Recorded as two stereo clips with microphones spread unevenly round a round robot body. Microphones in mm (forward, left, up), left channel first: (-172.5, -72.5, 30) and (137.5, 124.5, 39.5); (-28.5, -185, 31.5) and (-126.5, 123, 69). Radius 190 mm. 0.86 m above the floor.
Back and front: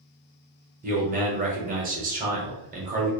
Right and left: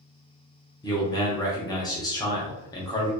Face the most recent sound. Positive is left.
turn(degrees=-15)